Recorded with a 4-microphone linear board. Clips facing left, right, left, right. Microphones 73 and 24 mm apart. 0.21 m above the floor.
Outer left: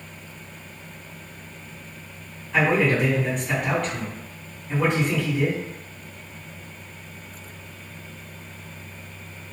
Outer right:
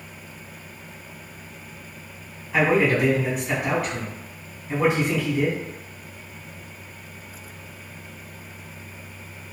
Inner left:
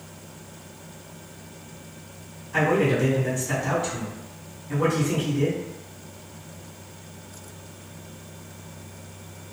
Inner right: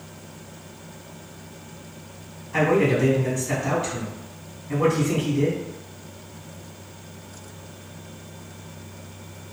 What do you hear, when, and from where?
2.5 s a man speaking: 5° right (ahead or behind), 1.9 m